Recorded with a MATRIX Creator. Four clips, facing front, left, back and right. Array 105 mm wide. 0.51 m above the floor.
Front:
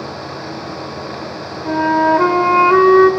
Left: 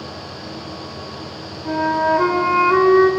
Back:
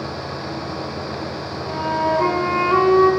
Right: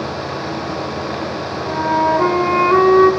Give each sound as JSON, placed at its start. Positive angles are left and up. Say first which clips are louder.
{"t": 1.6, "sound": "a flute", "louder": "right 1 dB, front 7 dB", "azimuth_deg": 5, "distance_m": 1.6}